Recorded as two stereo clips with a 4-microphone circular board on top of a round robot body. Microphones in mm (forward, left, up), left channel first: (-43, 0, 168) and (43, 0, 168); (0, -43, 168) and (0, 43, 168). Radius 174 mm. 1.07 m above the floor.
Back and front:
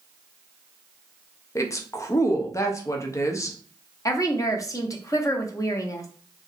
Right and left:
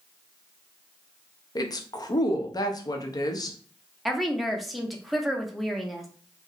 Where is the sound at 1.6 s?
130° right, 0.6 m.